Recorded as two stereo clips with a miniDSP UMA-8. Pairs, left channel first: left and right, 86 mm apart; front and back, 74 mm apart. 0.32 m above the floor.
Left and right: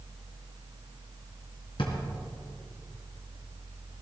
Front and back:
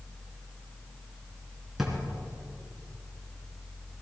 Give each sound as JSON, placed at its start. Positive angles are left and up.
{"t": 1.8, "sound": "a drawer", "azimuth_deg": 95, "distance_m": 2.5}